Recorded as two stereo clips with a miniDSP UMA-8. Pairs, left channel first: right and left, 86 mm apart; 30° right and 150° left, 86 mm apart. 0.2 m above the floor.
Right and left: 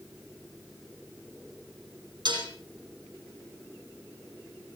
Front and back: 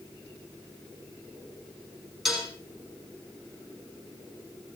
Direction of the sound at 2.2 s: 65° left.